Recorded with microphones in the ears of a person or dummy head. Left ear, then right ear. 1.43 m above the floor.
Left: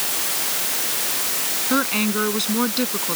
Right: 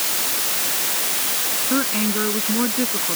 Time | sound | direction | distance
1.7 | a woman speaking | 90° left | ?